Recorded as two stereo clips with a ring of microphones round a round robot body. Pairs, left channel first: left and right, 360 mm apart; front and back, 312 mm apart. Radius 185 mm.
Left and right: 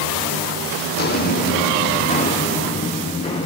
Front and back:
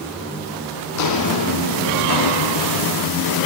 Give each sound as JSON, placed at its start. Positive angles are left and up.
{"t": 0.9, "sound": "footsteps", "azimuth_deg": 30, "distance_m": 1.3}